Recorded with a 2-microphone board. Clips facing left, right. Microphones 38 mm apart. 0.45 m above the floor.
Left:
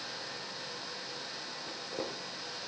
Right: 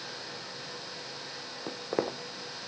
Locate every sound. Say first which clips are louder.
1.7 s footsteps: right 9 dB; 60° right (ahead or behind), 1.1 m